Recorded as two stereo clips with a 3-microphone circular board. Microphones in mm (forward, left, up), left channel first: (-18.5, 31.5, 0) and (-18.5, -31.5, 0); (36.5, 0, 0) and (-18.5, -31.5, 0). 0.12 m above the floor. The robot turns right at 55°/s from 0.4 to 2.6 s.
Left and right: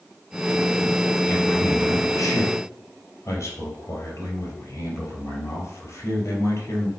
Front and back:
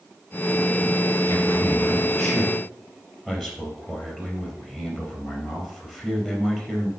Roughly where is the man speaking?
Ahead left.